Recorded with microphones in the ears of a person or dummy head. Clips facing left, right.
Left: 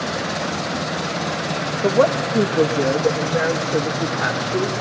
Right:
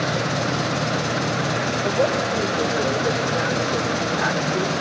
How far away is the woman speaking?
About 1.6 m.